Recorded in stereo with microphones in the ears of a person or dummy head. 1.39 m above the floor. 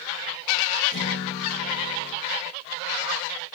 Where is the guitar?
70° left (ahead or behind), 6.5 m.